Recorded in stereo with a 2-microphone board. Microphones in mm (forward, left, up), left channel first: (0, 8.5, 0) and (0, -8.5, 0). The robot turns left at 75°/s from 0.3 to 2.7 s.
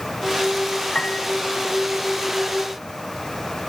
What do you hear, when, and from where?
0.9 s a piano: 65° left (ahead or behind); by 1.3 s 90° left